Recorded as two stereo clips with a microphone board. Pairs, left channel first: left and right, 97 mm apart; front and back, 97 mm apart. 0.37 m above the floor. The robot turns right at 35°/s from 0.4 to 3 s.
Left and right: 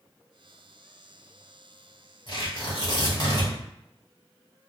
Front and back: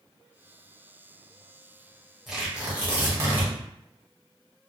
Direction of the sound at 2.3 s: 90° left.